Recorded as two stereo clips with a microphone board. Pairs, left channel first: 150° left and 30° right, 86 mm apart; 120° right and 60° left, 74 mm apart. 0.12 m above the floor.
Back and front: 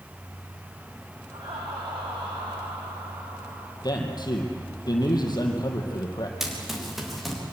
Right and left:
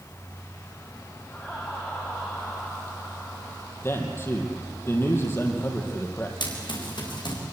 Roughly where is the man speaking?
Behind.